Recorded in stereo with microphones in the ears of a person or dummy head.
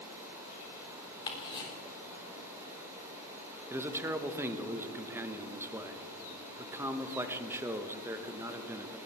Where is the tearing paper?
No tearing paper in this recording.